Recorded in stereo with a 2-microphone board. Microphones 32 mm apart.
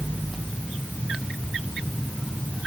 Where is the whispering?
No whispering in this recording.